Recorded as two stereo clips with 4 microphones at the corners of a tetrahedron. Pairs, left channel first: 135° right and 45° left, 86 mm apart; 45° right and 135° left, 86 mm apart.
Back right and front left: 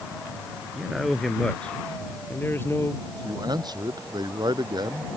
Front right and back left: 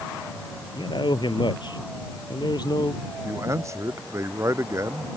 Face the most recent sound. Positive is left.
turn(degrees=80)